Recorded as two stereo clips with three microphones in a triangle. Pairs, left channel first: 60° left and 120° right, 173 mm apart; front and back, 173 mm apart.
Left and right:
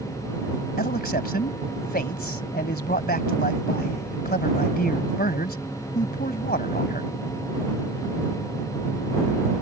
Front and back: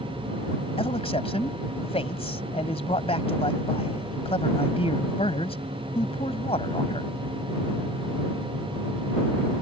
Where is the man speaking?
50° left.